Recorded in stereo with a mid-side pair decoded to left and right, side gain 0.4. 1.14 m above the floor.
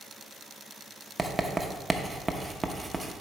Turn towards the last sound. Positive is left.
turn(degrees=-25)